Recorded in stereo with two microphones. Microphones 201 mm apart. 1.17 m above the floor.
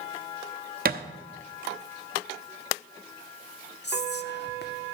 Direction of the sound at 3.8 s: 55° left (ahead or behind).